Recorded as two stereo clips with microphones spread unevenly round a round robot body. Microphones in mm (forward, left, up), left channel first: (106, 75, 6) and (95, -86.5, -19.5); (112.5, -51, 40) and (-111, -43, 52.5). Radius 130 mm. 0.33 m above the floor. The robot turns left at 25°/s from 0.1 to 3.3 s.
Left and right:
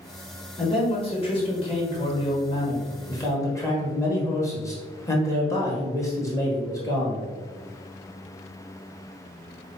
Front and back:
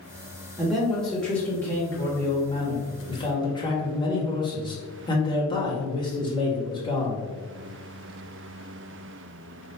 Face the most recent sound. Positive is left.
turn(degrees=20)